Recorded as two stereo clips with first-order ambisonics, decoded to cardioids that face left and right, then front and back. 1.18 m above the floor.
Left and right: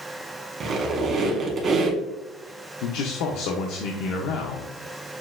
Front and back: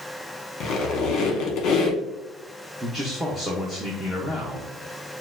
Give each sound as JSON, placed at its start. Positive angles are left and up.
{"t": 0.6, "sound": "a squeak", "azimuth_deg": -40, "distance_m": 0.9}
{"t": 2.8, "sound": "a man speaking", "azimuth_deg": 90, "distance_m": 0.6}